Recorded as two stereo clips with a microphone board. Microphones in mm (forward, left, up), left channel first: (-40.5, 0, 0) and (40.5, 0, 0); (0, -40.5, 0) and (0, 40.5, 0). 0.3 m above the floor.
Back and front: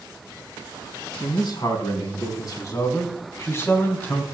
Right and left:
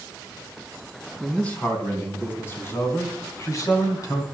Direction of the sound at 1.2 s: 160° right.